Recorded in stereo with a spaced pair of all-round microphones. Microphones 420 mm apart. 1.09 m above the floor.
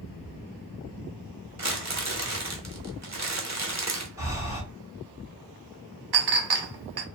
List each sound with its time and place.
1.6 s crumpling: 40° right (ahead or behind), 0.9 m
4.2 s breathing: 5° right (ahead or behind), 1.4 m
6.1 s a clink: 65° right (ahead or behind), 0.5 m